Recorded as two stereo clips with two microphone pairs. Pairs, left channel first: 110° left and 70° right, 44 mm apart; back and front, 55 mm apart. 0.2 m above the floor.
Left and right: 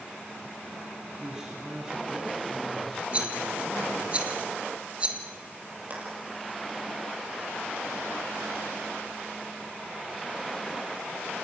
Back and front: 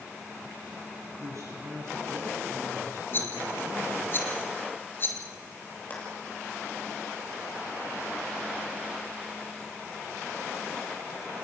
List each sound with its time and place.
1.2 s a man speaking: straight ahead, 6.5 m; by 4.1 s 35° left, 8.5 m
3.1 s a rattle: 130° right, 1.7 m
5.9 s a clap: 120° right, 5 m